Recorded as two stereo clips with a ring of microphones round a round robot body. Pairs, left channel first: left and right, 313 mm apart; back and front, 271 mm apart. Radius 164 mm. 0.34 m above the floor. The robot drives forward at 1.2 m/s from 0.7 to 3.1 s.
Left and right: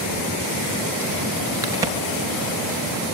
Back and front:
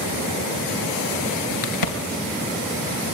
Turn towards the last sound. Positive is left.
turn(degrees=-175)